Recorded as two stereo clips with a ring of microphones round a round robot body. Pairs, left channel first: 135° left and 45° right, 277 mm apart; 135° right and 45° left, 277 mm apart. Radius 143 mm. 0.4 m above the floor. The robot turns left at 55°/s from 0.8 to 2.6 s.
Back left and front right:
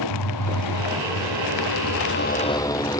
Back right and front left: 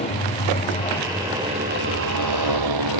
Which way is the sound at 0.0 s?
155° left.